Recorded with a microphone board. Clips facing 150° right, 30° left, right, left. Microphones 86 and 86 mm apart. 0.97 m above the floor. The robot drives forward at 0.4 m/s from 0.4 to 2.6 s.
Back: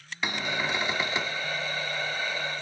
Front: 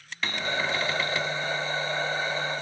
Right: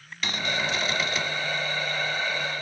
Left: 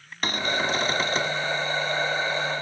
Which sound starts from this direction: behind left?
A cupboard door, at 0.2 s.